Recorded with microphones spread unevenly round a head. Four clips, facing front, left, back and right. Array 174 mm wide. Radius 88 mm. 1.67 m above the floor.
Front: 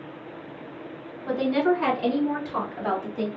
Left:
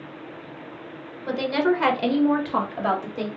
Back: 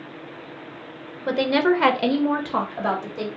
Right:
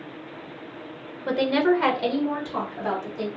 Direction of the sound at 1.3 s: 160° right.